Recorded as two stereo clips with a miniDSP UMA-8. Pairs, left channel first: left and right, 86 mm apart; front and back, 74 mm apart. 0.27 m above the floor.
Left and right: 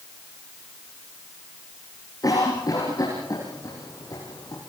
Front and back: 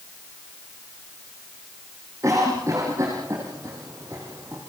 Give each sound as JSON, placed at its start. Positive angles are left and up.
{"t": 2.2, "sound": "a cough", "azimuth_deg": 130, "distance_m": 9.5}